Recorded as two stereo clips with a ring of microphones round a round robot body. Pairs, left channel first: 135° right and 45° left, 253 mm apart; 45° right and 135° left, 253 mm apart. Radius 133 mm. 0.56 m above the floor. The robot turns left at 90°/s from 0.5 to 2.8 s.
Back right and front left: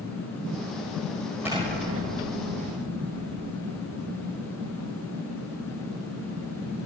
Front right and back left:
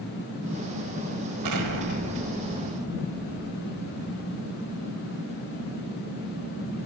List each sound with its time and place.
1.4 s an explosion: 125° left, 1.6 m; by 4.9 s 5° left, 1.6 m